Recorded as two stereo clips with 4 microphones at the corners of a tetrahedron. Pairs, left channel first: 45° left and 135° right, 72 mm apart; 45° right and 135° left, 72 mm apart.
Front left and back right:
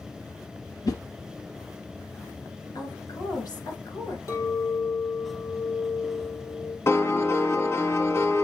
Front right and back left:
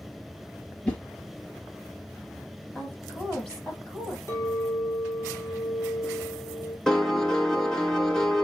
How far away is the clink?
About 3 m.